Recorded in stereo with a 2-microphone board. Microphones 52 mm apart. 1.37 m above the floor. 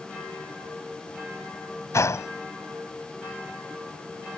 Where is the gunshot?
75° left (ahead or behind).